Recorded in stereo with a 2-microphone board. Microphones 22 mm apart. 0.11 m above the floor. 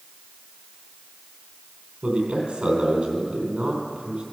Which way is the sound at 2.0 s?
55° right (ahead or behind).